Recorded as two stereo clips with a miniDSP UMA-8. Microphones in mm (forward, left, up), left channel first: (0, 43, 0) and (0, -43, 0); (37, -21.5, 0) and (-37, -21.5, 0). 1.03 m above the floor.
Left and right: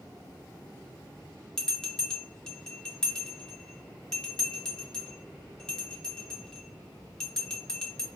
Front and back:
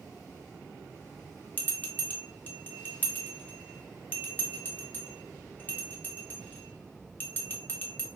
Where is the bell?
15° left, 0.6 m.